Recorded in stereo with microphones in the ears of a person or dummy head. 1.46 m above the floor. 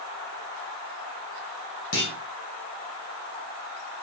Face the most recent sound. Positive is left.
turn(degrees=50)  # may be behind; listen again after turning